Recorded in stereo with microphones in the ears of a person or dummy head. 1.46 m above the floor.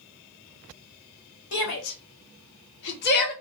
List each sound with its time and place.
1.5 s a shout: 60° left (ahead or behind), 1.1 m; by 3.3 s 50° left (ahead or behind), 1.1 m